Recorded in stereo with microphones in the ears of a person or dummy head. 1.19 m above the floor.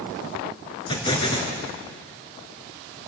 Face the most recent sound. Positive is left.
turn(degrees=30)  # may be behind; listen again after turning